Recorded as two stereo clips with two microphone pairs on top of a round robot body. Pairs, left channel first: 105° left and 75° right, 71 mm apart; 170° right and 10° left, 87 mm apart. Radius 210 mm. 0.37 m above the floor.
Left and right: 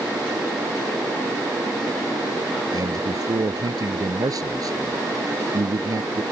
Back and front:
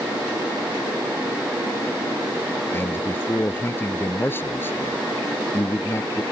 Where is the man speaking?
105° right.